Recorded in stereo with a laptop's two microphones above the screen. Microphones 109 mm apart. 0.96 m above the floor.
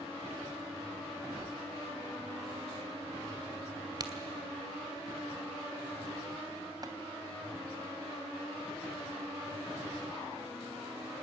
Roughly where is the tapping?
Right.